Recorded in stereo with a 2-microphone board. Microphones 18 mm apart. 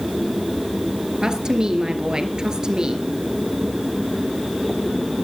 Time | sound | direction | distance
1.2 | a woman speaking | 50° right (ahead or behind) | 2.5 m